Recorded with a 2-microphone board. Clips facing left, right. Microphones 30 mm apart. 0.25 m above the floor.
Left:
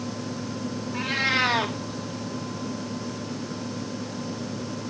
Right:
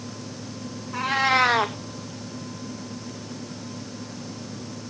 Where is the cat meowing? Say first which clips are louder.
Right 4 dB; 75° right (ahead or behind), 1.8 m.